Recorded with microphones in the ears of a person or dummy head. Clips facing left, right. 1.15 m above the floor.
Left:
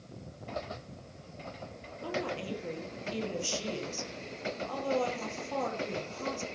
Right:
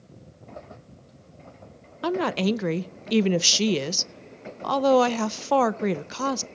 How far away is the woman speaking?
About 0.5 m.